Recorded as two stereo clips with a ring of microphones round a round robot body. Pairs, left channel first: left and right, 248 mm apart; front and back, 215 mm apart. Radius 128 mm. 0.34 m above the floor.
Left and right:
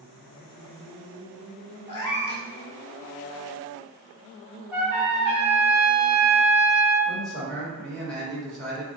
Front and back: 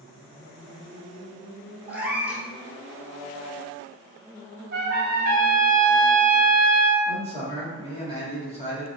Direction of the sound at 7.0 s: 5° left.